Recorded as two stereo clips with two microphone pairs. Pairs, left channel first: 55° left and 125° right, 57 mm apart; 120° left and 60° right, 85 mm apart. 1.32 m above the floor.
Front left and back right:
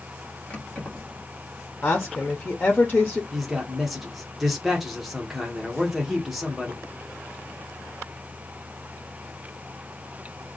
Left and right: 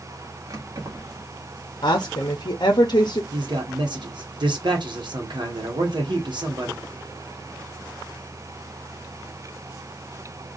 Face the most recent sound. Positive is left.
turn(degrees=-35)